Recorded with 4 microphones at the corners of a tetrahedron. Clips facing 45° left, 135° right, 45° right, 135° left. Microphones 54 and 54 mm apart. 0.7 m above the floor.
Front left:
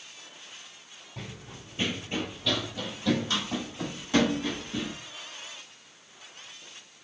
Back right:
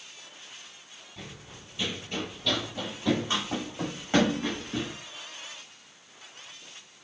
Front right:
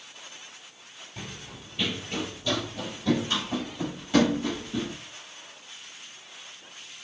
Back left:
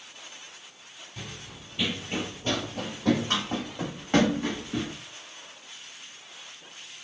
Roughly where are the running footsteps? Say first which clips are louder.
Front left 3 dB, front right 1 dB; ahead.